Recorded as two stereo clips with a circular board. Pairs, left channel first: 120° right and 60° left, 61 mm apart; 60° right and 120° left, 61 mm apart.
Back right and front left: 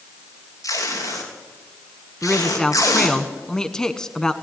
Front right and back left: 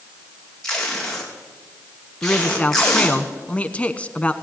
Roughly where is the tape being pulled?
Behind right.